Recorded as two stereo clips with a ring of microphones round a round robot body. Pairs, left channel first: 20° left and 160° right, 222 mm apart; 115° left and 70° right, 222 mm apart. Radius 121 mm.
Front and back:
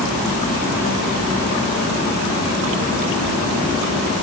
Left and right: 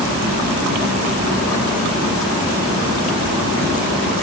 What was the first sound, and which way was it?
Only background noise.